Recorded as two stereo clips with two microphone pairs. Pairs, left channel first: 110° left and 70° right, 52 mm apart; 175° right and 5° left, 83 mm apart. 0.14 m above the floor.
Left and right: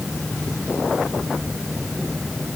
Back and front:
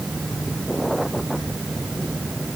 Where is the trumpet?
No trumpet in this recording.